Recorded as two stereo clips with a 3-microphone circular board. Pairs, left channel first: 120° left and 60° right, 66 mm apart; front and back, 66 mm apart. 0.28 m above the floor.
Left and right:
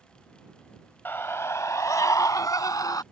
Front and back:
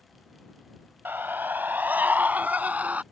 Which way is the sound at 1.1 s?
155° left.